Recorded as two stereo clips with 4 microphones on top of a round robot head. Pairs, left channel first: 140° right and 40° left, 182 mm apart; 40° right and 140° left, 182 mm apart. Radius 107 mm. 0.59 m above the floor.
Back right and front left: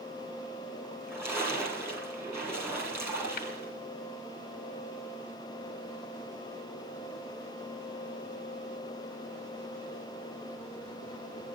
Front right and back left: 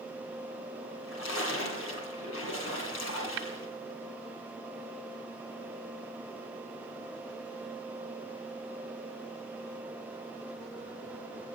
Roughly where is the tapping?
Behind.